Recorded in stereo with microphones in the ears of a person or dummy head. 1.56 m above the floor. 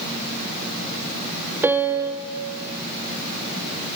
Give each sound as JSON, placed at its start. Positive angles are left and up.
{"t": 1.6, "sound": "a piano", "side_deg": -10, "distance_m": 0.8}